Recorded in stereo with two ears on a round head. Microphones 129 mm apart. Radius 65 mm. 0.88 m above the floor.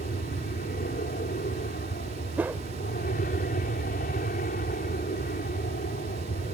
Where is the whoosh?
10° right (ahead or behind).